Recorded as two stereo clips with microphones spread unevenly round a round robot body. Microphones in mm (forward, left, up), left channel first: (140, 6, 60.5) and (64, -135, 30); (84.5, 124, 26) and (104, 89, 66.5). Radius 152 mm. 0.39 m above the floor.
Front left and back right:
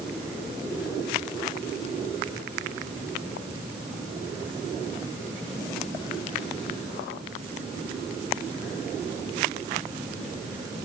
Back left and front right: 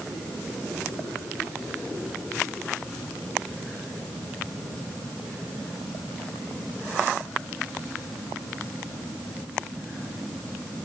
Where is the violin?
No violin in this recording.